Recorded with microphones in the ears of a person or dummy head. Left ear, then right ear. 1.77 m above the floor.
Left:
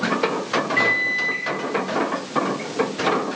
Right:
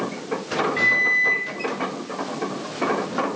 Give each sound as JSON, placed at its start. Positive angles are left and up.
{"t": 0.8, "sound": "a microwave", "side_deg": 0, "distance_m": 5.0}